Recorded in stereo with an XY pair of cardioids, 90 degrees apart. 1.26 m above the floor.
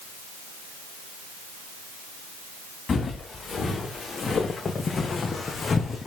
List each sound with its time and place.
2.9 s footsteps: 45° left, 5 m; by 6.1 s 40° left, 3.5 m